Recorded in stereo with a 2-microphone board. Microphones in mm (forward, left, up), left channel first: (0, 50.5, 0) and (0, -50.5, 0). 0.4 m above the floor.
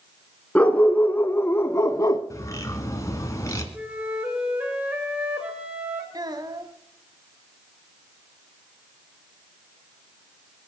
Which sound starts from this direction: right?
A child speaking, at 6.1 s.